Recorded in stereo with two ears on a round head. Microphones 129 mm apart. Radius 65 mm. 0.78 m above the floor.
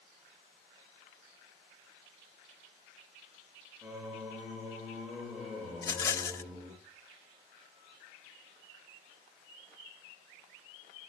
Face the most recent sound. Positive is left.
turn(degrees=20)  # may be behind; listen again after turning